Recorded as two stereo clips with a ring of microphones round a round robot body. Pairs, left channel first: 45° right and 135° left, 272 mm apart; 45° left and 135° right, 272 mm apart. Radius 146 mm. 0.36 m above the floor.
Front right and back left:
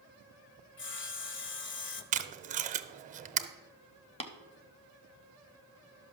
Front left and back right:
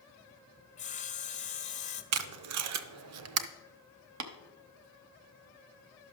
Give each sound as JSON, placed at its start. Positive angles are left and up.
{"t": 0.8, "sound": "sawing", "azimuth_deg": -10, "distance_m": 0.8}
{"t": 2.1, "sound": "tape being pulled", "azimuth_deg": -165, "distance_m": 0.6}
{"t": 4.2, "sound": "tapping", "azimuth_deg": -115, "distance_m": 0.9}